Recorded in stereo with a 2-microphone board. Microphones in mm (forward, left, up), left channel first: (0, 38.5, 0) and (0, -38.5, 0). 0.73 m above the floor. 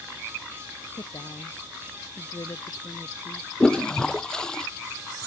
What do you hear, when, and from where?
0.9 s a woman speaking: 50° left (ahead or behind); by 3.5 s 45° left (ahead or behind)
3.6 s a toilet flushing: 10° left (ahead or behind)